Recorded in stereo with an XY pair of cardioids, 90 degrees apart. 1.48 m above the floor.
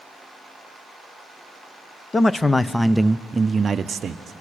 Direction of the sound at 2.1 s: 35° left.